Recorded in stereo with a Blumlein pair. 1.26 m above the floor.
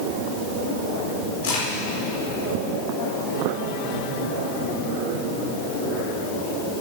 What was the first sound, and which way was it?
A crack, 60° left.